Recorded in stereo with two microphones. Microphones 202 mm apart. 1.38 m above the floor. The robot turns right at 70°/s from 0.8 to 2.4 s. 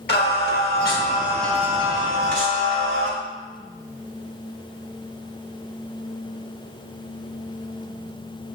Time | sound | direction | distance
0.1 | singing | 130° left | 2 m